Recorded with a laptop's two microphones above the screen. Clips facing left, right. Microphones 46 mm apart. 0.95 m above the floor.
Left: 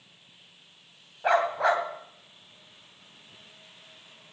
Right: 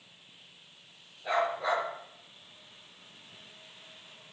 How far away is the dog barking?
About 2.5 m.